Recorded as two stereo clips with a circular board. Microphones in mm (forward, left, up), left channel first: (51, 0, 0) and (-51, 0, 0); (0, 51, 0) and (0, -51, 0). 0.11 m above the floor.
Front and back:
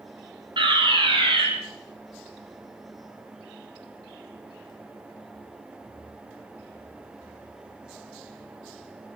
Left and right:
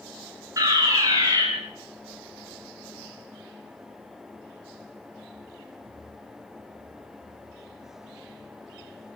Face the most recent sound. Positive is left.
turn(degrees=-145)